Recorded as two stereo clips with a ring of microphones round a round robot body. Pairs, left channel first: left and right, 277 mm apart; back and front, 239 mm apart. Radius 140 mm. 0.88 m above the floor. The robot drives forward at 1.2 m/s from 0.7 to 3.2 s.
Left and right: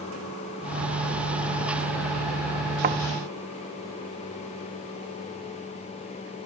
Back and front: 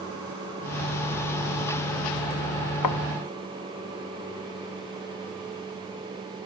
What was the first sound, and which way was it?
A thud, 150° right.